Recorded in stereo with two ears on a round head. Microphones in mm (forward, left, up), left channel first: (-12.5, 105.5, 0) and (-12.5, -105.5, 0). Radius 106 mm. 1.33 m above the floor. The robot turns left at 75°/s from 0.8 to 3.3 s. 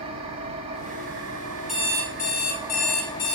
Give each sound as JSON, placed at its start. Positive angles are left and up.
{"t": 0.0, "sound": "an engine running", "azimuth_deg": -25, "distance_m": 3.0}
{"t": 1.7, "sound": "an alarm clock", "azimuth_deg": 180, "distance_m": 5.0}